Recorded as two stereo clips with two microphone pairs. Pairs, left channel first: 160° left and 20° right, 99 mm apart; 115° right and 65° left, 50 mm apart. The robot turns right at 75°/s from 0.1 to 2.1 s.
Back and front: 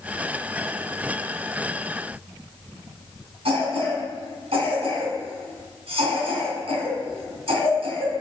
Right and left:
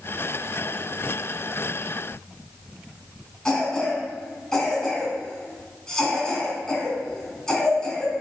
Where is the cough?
40° right, 3.5 m.